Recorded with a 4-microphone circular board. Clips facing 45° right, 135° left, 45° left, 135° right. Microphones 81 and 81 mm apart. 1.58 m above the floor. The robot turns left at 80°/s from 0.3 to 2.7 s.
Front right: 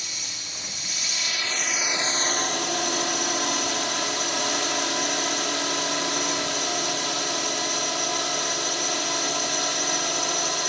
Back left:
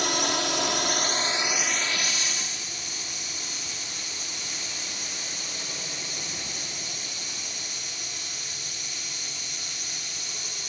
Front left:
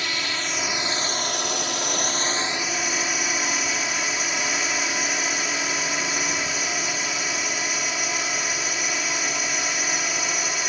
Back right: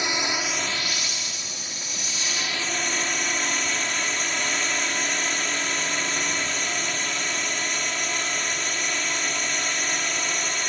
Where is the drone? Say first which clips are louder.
Back left 15 dB, back right 2 dB; 155° left; by 10.7 s 40° right.